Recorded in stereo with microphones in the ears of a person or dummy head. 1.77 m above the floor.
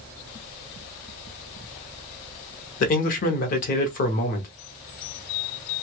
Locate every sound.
2.8 s a man speaking: 50° left (ahead or behind), 0.9 m